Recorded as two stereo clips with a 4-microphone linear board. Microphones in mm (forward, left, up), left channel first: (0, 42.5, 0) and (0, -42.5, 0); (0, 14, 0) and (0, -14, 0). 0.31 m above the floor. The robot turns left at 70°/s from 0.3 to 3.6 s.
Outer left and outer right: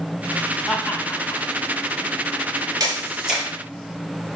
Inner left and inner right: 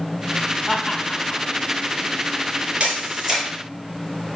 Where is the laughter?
Centre (ahead or behind), 1.8 m; by 1.4 s 45° left (ahead or behind), 1.8 m.